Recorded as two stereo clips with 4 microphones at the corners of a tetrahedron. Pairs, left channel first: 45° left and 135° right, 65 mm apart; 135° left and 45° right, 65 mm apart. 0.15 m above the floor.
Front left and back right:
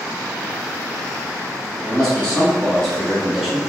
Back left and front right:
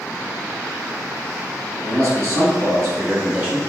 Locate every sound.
1.8 s a man speaking: 35° right, 1.9 m; by 3.6 s 70° right, 1.0 m